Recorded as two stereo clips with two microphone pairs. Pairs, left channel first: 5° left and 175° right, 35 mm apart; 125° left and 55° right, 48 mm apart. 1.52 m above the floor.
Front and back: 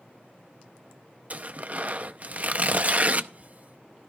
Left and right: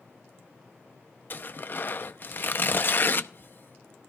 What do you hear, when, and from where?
1.3 s tearing paper: 150° left, 0.6 m